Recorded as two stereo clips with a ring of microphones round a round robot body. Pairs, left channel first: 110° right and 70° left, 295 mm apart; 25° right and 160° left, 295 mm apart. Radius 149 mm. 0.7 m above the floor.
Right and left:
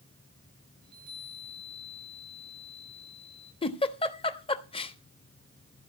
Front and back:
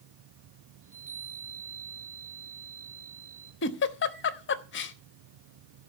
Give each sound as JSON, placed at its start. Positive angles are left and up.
{"t": 0.8, "sound": "a chime", "azimuth_deg": 110, "distance_m": 7.0}
{"t": 3.6, "sound": "a giggle", "azimuth_deg": -50, "distance_m": 1.0}